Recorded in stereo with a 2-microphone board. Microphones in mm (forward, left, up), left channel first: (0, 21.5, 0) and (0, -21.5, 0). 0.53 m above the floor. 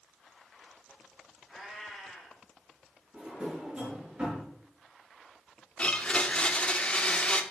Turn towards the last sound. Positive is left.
turn(degrees=25)  # may be behind; listen again after turning